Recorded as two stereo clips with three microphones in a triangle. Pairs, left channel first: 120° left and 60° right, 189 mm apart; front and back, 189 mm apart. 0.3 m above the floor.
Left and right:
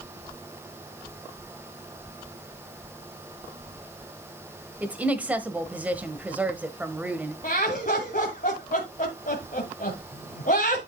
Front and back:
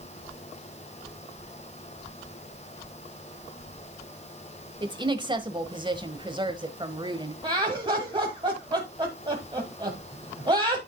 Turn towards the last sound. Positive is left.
turn(degrees=125)